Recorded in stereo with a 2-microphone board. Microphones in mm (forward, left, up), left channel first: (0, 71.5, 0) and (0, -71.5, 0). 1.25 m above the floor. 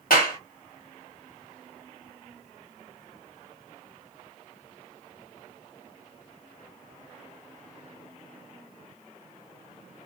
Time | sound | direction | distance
0.1 | a clap | 85° left | 1.8 m